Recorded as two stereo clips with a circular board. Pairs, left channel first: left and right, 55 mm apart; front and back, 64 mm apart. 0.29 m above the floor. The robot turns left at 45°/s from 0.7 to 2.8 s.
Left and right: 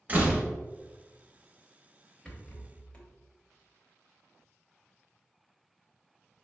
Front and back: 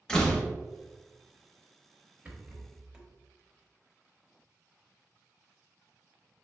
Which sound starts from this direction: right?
A door slam, at 0.1 s.